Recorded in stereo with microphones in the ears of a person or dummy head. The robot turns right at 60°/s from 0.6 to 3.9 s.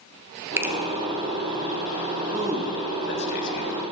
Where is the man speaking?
20° right (ahead or behind), 1.4 m; by 3.8 s 65° left (ahead or behind), 1.4 m.